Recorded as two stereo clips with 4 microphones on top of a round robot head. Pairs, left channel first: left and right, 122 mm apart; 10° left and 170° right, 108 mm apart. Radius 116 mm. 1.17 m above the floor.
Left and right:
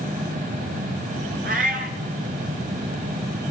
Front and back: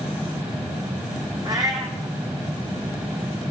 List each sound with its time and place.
1.4 s a cat meowing: 105° right, 0.9 m